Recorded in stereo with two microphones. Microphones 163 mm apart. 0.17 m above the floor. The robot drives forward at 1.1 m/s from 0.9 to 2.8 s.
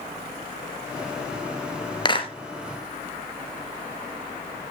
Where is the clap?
30° left (ahead or behind), 2.5 m.